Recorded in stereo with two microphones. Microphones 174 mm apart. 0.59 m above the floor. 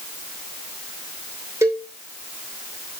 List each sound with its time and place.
1.6 s a cowbell: 15° right (ahead or behind), 3 m